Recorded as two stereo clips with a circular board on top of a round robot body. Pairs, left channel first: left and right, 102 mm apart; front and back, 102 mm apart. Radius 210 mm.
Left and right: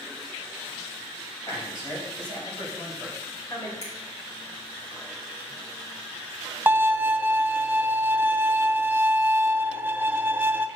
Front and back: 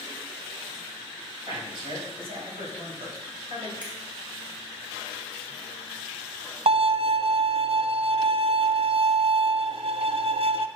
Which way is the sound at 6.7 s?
160° right.